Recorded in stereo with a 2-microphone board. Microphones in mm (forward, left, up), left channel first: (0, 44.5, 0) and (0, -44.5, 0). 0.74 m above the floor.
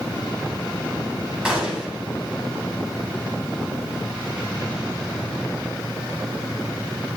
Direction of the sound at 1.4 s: 15° right (ahead or behind).